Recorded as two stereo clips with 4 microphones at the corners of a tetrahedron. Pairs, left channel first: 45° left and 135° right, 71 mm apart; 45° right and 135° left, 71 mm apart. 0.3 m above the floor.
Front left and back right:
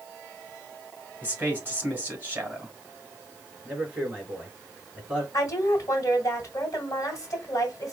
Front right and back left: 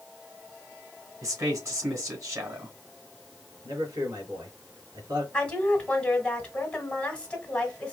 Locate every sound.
1.2 s a man speaking: 165° left, 2.5 m
3.6 s a man speaking: 150° left, 3 m
5.3 s a woman speaking: 25° left, 2 m